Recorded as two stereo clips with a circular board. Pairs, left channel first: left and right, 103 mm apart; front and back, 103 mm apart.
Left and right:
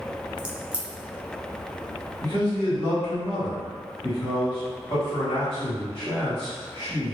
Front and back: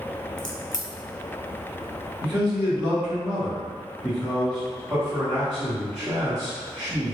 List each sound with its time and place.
0.4 s a crack: 15° right, 0.6 m
2.2 s a man speaking: 95° left, 1.8 m